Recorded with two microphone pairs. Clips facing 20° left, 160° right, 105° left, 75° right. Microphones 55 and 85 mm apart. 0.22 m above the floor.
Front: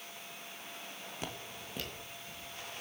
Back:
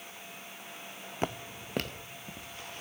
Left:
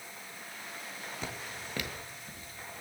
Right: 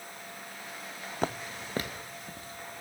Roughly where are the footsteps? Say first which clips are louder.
Back 10 dB, right 11 dB; right.